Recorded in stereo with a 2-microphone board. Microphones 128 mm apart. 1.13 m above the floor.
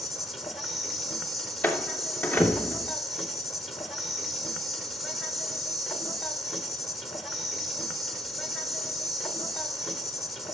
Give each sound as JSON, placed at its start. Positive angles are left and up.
{"t": 0.0, "sound": "an insect", "side_deg": 0, "distance_m": 1.6}
{"t": 1.6, "sound": "a door slam", "side_deg": 10, "distance_m": 2.5}